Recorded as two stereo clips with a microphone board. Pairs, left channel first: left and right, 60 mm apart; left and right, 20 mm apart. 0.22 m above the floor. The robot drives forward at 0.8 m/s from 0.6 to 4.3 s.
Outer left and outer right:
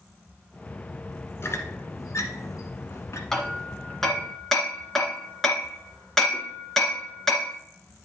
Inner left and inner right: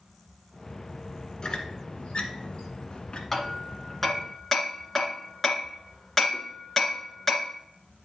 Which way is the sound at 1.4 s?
45° left (ahead or behind).